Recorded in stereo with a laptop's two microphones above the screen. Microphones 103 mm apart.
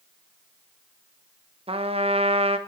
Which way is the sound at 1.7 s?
80° right.